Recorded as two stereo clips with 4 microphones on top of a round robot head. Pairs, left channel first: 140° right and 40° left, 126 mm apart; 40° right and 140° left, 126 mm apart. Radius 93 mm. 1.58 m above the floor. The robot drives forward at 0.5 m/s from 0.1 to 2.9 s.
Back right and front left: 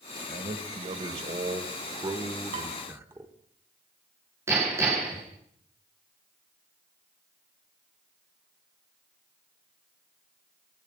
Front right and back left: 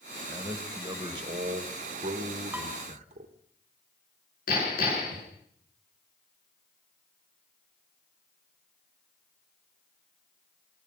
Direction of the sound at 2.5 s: 65° left.